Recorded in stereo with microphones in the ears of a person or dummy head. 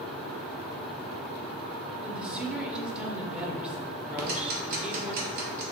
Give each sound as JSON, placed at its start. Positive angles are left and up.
{"t": 2.0, "sound": "a woman speaking", "side_deg": -5, "distance_m": 0.6}
{"t": 4.2, "sound": "ticking", "side_deg": -45, "distance_m": 0.8}